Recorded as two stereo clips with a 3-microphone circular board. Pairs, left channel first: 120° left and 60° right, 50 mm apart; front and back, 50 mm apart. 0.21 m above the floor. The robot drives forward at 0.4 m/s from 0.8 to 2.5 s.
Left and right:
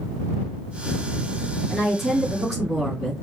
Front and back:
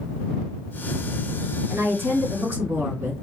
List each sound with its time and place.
1.7 s a woman speaking: 155° right, 3 m; by 3.2 s 160° right, 3 m